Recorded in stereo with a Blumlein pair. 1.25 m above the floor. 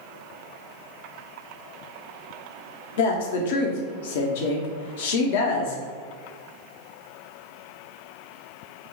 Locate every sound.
3.0 s a woman speaking: 55° left, 0.7 m